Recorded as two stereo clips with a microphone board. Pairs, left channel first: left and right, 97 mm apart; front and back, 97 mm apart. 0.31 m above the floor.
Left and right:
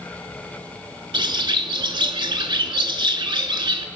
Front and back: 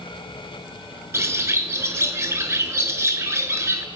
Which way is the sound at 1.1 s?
120° right.